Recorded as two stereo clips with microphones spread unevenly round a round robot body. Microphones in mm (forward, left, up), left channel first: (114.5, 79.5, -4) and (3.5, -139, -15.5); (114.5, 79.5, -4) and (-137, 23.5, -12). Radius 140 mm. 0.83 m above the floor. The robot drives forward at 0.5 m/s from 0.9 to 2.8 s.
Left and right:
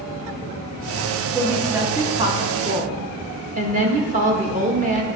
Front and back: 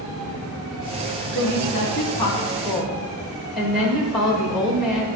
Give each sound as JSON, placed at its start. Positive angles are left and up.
{"t": 1.4, "sound": "a woman speaking", "azimuth_deg": -35, "distance_m": 1.2}